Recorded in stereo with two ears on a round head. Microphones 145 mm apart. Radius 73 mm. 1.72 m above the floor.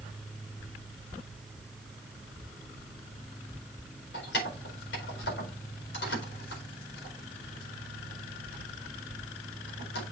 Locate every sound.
4.1 s keys jangling: 80° left, 4.5 m